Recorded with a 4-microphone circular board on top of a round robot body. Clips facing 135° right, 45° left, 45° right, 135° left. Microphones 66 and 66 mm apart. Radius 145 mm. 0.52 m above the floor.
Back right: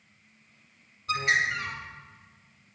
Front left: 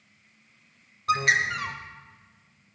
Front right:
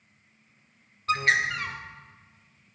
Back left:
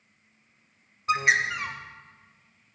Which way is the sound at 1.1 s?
60° left.